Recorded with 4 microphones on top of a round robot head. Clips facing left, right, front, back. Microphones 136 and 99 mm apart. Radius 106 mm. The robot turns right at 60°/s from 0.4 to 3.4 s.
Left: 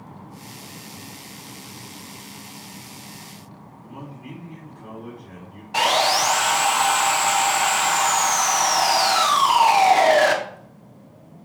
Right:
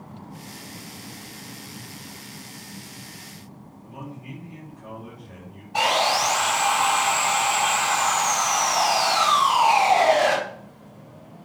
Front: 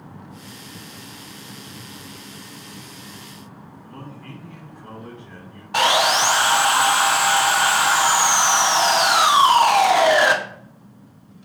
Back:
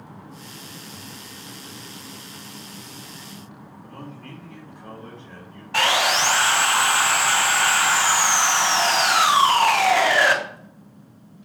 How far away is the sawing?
About 1.1 m.